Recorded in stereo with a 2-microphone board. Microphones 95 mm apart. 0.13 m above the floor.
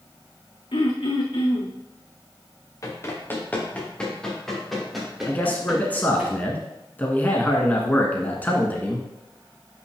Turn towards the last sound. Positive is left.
turn(degrees=20)  # may be behind; listen again after turning